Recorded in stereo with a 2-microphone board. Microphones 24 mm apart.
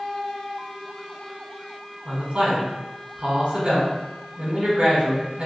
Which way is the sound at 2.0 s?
50° right (ahead or behind).